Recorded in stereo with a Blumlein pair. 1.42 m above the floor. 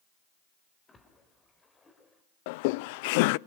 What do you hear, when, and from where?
0.9 s a splash: 15° left, 4 m
2.5 s laughter: 50° left, 0.6 m